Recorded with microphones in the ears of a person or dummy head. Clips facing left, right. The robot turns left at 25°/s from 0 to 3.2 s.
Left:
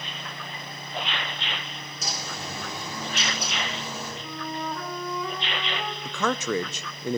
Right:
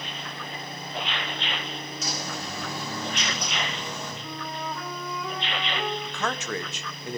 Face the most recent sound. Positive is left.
turn(degrees=75)  # may be behind; listen again after turning